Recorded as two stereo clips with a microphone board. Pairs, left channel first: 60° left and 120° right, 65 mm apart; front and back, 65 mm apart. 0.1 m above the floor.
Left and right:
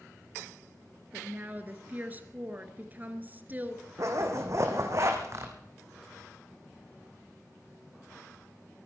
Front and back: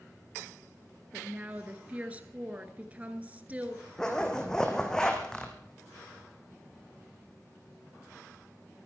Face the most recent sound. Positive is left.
turn(degrees=-80)